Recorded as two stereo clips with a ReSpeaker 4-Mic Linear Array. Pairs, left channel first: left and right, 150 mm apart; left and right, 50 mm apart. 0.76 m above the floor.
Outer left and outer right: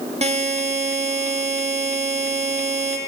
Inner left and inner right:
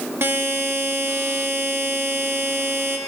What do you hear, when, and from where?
0.2 s a buzzer: 45° right (ahead or behind), 1.0 m